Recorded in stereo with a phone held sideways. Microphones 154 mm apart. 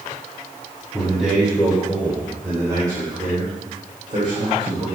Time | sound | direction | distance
0.9 | a man speaking | centre (ahead or behind) | 4 m